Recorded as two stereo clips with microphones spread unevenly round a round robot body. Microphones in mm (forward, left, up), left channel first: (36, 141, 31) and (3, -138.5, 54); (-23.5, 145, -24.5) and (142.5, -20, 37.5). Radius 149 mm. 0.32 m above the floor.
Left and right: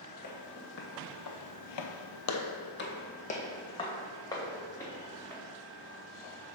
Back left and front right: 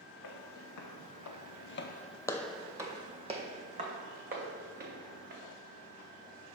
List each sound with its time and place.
0.2 s footsteps: 140° left, 1.4 m; by 5.4 s straight ahead, 3 m